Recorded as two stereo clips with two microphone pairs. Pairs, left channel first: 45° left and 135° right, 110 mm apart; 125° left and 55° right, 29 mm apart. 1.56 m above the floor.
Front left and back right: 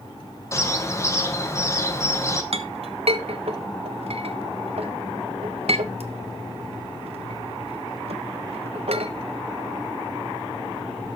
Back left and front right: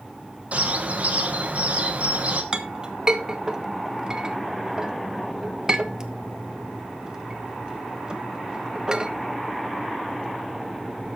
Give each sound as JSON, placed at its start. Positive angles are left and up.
{"t": 0.5, "sound": "a bird", "azimuth_deg": -20, "distance_m": 1.6}
{"t": 2.5, "sound": "a clink", "azimuth_deg": -120, "distance_m": 1.3}